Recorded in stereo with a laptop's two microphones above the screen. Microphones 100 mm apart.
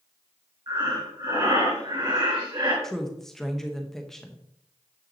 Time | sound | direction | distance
0.7 | breathing | 40° right (ahead or behind) | 2.5 m
2.8 | a woman speaking | 5° left (ahead or behind) | 0.9 m